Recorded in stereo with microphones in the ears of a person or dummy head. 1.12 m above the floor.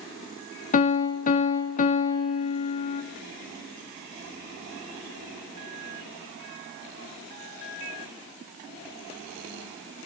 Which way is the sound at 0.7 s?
40° left (ahead or behind).